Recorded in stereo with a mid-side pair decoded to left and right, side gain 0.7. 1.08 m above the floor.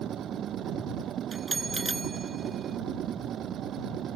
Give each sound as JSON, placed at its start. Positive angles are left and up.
{"t": 0.0, "sound": "a machine running", "azimuth_deg": -45}
{"t": 1.3, "sound": "a bell", "azimuth_deg": -15}